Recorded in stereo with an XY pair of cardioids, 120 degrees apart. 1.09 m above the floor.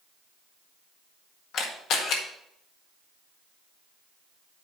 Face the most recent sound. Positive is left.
turn(degrees=70)